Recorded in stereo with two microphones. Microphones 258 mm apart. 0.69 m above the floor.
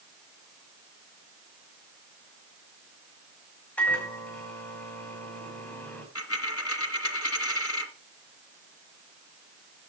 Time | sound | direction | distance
3.8 | a microwave | 5° left (ahead or behind) | 5 m
6.2 | a dropped coin | 65° left (ahead or behind) | 1.9 m